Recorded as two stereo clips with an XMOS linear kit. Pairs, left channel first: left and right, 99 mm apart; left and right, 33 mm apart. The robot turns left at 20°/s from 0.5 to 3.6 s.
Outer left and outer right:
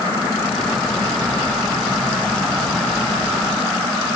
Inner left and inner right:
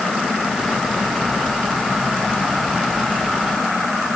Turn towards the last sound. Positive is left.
No sound to turn to.